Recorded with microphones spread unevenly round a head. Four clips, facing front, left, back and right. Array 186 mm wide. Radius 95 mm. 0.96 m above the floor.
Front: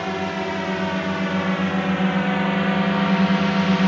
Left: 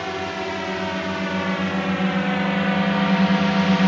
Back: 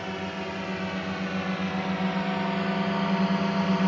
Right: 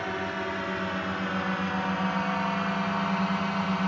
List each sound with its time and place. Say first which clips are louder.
0.0 s a drone: left 4 dB, front 8 dB; 10° left; by 3.9 s 75° left